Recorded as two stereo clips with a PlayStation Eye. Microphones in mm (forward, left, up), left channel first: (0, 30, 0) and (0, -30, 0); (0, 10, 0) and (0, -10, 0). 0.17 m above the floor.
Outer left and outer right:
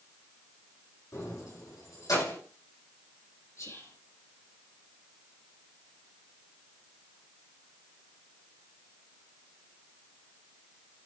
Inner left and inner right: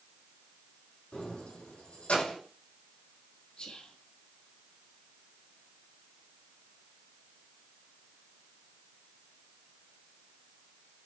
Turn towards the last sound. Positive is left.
turn(degrees=50)  # may be behind; listen again after turning